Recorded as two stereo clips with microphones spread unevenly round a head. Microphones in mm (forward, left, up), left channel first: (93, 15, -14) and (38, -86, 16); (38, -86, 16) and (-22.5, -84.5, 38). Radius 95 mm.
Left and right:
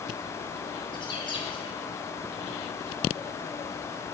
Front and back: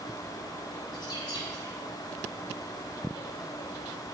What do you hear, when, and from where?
0.9 s a bird: 10° left, 2.5 m